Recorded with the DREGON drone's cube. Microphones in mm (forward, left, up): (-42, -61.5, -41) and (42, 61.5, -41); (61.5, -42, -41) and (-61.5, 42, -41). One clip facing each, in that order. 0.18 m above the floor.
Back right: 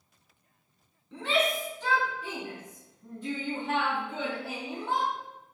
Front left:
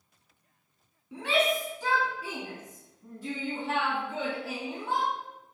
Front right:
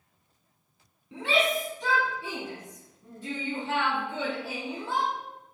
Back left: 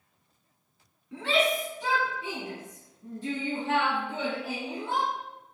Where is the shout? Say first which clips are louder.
Front left 1 dB, even; 5° right, 1.0 m; by 5.1 s 140° left, 2.5 m.